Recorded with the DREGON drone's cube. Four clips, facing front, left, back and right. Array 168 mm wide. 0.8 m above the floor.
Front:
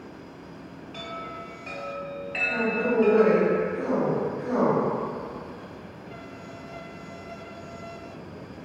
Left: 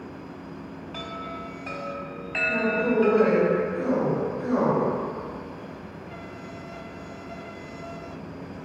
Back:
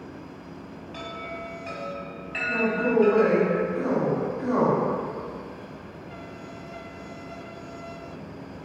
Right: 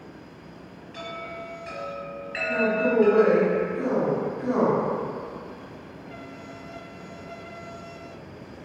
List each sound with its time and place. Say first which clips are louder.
0.9 s a chime: right 1 dB, back 1 dB; 100° left, 1.3 m
2.5 s a man speaking: right 2 dB, back 2 dB; 175° left, 1.9 m